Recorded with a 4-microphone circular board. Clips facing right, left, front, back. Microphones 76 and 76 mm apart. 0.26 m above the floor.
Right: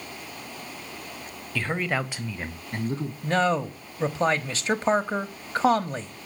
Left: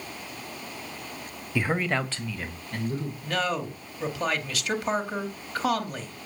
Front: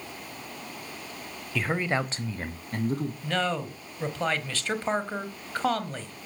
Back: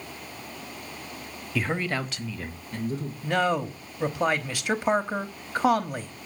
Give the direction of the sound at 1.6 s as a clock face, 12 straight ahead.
8 o'clock.